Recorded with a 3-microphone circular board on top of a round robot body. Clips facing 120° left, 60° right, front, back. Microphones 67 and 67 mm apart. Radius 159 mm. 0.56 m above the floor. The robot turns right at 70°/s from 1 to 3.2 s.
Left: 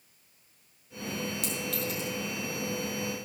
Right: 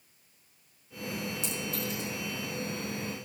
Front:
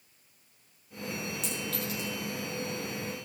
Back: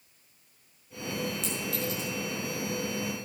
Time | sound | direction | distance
1.4 | a clink | 80° left | 7.5 m